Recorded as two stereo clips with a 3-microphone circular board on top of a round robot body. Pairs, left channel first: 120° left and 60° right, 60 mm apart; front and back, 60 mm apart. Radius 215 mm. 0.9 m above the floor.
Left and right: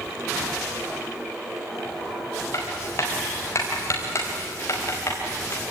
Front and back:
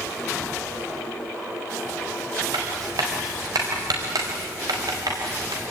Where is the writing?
160° left, 4.5 m.